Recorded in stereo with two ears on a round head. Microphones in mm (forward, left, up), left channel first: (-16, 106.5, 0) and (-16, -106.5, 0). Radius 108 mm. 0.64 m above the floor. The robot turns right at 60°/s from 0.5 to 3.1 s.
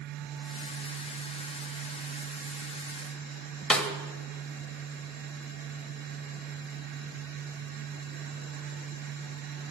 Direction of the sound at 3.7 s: 5° left (ahead or behind).